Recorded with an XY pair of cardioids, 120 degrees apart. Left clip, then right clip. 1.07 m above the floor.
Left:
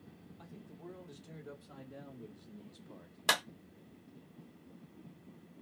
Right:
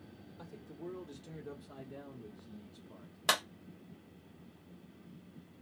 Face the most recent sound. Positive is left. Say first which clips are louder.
# even
turn(degrees=0)